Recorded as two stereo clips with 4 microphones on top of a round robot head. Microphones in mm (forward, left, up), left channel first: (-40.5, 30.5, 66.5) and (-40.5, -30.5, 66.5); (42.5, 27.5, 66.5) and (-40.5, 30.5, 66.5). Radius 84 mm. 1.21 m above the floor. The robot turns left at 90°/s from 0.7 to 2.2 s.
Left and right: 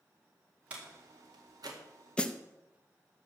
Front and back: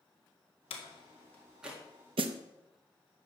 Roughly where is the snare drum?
Behind.